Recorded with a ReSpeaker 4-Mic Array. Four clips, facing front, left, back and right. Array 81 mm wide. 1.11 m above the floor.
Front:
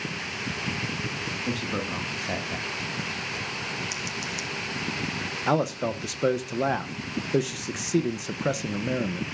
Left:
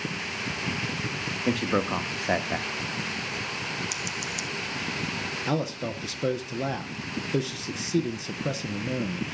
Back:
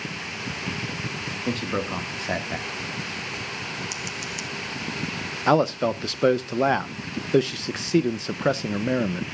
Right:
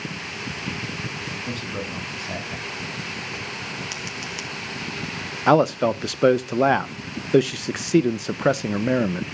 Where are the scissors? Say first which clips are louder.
Right 1 dB, even; 95° right, 0.6 m.